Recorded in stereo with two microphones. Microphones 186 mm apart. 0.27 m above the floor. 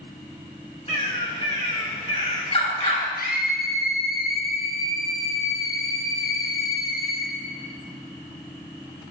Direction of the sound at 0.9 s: 35° left (ahead or behind).